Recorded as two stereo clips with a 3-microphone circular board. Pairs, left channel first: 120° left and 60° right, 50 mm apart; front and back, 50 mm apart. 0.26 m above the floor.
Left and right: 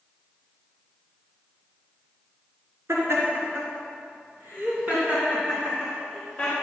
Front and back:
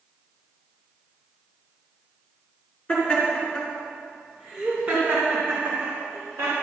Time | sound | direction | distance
2.9 | laughter | 70° right | 4 m